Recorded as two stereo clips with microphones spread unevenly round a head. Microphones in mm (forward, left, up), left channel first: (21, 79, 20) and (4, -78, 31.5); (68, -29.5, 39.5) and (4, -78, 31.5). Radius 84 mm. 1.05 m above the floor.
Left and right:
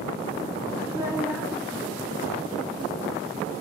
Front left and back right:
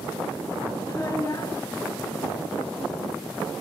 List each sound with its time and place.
0.8 s a child speaking: 15° right, 5.5 m